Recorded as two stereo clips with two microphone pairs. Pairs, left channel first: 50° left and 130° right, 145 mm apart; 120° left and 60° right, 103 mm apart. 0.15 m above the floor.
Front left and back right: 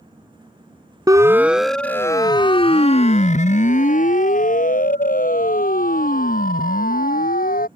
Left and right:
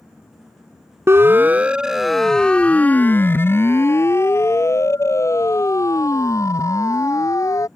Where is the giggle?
I don't hear a giggle.